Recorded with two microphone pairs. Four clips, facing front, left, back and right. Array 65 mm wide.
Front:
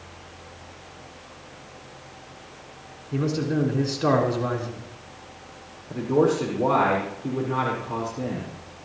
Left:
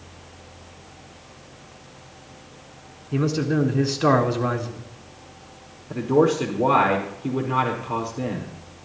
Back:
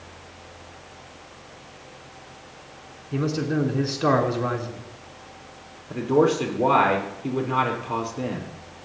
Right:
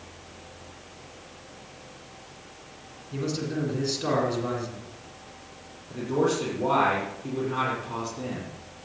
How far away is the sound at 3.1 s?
About 3.5 m.